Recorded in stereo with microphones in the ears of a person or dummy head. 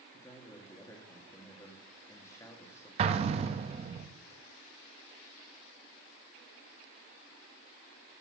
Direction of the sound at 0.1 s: 15° left (ahead or behind).